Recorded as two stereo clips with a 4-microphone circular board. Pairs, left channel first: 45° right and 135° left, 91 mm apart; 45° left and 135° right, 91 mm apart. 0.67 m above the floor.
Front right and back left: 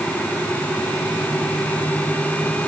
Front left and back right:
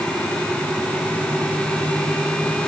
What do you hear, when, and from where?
Only background noise.